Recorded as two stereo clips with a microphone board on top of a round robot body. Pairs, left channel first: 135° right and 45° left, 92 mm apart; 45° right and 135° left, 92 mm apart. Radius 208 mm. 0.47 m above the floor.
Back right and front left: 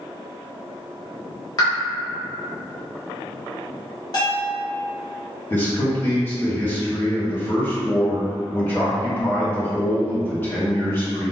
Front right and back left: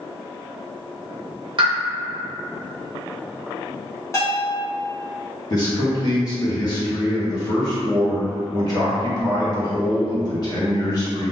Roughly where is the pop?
Behind.